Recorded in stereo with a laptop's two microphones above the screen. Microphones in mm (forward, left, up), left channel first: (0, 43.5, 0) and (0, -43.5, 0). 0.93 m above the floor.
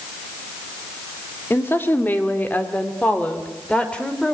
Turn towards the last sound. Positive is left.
turn(degrees=10)  # may be behind; listen again after turning